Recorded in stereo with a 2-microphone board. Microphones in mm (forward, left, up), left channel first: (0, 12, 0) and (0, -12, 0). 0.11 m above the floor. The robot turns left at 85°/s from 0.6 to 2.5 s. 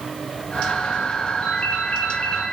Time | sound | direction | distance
1.4 | a ringtone | 120° left | 9 m